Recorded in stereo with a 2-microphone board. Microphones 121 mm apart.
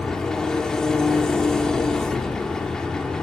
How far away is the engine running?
About 1.9 m.